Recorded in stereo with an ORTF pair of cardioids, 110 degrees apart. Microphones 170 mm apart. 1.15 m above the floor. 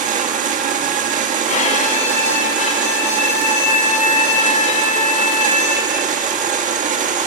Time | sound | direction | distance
0.0 | a machine running | 50° right | 1.5 m
1.5 | a violin | 45° left | 2.5 m